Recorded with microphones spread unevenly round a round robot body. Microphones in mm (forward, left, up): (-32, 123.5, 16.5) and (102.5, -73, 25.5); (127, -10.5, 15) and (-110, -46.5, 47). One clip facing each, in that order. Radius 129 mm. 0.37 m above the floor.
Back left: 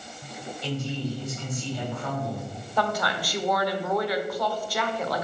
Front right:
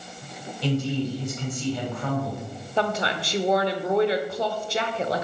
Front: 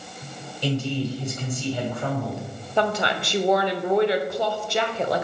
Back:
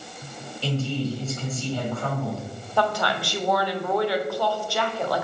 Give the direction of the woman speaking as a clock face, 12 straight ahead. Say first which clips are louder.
Front right 2 dB, front 1 dB; 12 o'clock.